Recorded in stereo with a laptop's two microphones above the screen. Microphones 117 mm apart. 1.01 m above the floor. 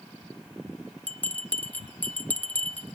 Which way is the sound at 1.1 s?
15° left (ahead or behind).